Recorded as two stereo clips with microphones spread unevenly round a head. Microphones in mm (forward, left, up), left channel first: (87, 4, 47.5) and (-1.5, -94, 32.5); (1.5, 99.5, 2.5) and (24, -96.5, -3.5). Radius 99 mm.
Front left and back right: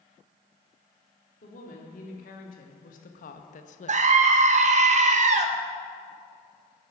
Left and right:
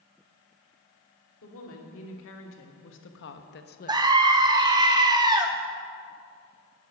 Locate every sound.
1.4 s a woman speaking: 80° left, 3 m; by 4.0 s 55° left, 0.7 m
3.9 s a scream: 150° right, 0.8 m